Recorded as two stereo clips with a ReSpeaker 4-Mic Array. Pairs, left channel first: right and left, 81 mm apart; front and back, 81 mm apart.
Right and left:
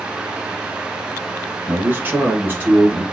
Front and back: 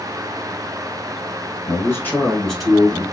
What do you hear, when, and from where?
1.7 s a man speaking: 25° left, 2.0 m; by 3.0 s 135° left, 1.7 m